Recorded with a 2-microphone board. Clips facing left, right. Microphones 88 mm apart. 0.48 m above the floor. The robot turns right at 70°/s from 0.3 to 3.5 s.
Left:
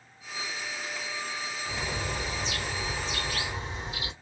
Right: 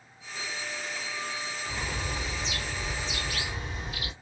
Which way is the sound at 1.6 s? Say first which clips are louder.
Left 2 dB; 20° left.